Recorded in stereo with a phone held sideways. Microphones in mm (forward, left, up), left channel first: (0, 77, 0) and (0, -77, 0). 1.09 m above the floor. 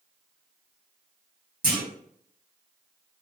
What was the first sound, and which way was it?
A clunk, 65° right (ahead or behind).